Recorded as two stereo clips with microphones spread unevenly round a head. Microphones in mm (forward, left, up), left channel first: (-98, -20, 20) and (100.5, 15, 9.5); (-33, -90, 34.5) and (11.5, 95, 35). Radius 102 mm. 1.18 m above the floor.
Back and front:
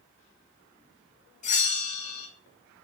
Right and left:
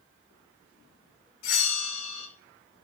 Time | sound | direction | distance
1.4 | a bell | 115° right | 5.5 m